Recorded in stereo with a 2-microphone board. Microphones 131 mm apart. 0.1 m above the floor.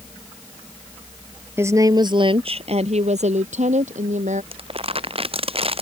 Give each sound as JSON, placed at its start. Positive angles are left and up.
{"t": 1.6, "sound": "a woman speaking", "side_deg": -20}
{"t": 4.5, "sound": "crumpling", "side_deg": -45}